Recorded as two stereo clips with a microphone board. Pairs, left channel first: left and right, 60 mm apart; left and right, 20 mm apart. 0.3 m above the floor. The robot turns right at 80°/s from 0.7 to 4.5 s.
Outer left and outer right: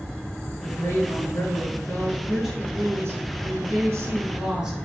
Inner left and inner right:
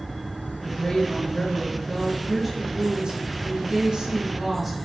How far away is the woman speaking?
About 3.5 m.